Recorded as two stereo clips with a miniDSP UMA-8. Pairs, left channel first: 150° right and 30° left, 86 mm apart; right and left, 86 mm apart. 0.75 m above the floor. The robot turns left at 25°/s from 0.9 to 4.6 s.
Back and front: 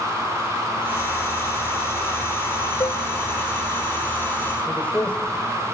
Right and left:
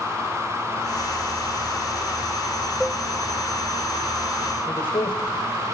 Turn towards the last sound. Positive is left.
turn(degrees=-75)